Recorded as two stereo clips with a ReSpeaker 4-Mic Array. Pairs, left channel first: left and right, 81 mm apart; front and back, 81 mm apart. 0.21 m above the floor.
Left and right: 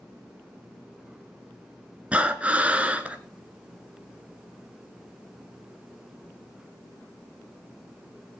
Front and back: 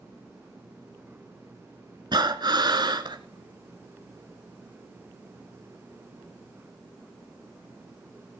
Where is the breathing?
165° right, 1.7 m.